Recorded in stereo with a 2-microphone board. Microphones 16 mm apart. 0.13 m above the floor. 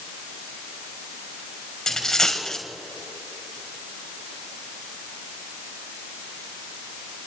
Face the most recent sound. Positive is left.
turn(degrees=35)  # may be behind; listen again after turning